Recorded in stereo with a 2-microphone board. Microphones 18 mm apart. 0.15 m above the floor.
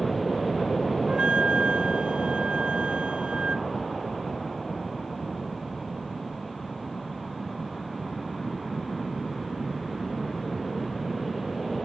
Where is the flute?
85° right.